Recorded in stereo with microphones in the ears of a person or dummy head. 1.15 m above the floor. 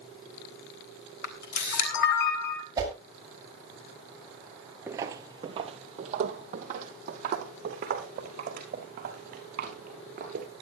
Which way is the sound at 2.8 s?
20° right (ahead or behind).